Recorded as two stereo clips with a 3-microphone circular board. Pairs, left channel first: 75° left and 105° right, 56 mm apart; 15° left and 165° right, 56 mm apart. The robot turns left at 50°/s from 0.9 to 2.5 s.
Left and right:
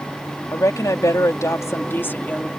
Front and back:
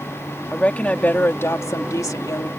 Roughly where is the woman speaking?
Left.